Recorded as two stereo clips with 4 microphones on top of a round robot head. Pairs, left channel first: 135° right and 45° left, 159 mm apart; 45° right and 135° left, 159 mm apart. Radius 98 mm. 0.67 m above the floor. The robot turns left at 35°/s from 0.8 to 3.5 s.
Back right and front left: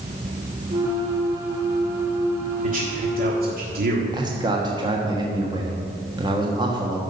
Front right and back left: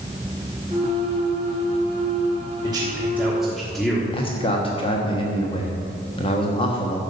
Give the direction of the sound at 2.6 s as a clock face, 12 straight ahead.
10 o'clock.